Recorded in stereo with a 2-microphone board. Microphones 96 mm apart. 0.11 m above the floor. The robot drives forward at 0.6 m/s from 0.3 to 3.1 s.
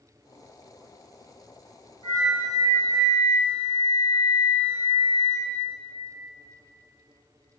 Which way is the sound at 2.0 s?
65° right (ahead or behind).